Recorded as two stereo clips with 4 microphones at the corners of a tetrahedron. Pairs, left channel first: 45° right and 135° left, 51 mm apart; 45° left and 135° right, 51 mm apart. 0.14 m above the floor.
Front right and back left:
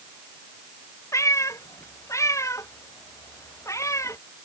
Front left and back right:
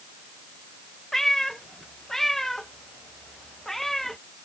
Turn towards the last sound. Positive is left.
turn(degrees=-40)